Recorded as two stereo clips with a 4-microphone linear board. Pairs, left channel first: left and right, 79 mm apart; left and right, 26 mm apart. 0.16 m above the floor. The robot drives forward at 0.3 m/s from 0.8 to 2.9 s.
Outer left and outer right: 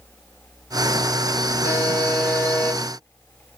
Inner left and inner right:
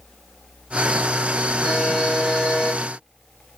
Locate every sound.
1.6 s a buzzer: 50° right (ahead or behind), 2.5 m